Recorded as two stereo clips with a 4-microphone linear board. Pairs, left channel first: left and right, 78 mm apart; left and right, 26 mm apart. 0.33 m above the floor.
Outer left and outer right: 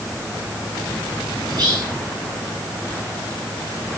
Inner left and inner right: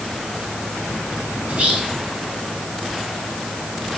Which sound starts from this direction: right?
Whispering, at 1.5 s.